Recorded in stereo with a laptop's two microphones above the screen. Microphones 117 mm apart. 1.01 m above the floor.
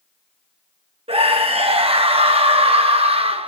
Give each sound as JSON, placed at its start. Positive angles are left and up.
{"t": 1.1, "sound": "a scream", "side_deg": -55, "distance_m": 1.2}